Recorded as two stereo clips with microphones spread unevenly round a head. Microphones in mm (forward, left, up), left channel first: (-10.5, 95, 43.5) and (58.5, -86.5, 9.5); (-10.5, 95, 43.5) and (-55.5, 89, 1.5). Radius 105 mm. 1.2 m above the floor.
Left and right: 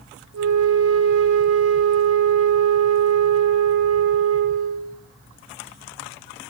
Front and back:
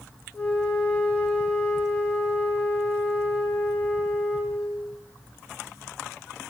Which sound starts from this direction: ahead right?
A flute, at 0.3 s.